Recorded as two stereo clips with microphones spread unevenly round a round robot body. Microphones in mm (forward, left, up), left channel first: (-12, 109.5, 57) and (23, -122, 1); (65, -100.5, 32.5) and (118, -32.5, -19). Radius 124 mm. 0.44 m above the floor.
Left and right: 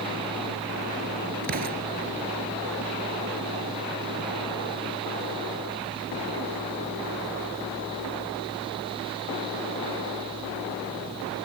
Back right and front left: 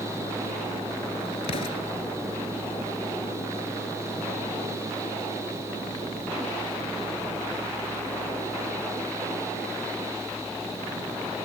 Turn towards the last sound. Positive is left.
turn(degrees=-135)